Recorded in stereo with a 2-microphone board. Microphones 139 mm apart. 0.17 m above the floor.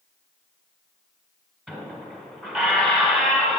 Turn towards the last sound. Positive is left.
turn(degrees=5)  # may be behind; listen again after turning